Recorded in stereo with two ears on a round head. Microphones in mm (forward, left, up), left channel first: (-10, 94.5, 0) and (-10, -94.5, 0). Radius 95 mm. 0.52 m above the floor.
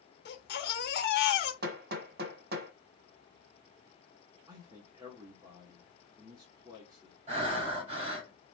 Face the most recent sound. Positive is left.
turn(degrees=-35)  # may be behind; listen again after turning